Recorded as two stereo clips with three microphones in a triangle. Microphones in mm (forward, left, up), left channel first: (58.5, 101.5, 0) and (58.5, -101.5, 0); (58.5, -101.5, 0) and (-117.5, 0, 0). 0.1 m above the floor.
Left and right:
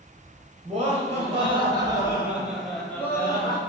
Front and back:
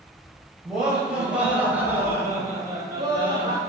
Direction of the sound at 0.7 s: 125° right.